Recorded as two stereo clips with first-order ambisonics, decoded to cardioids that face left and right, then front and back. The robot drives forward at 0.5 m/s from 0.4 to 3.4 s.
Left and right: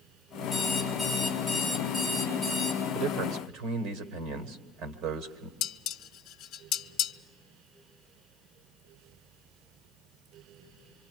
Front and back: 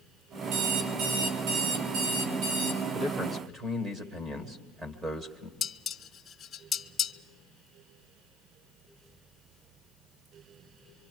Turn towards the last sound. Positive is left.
turn(degrees=75)